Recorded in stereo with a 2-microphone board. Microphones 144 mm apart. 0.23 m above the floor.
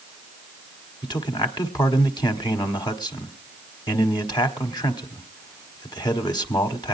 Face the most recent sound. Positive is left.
turn(degrees=30)  # may be behind; listen again after turning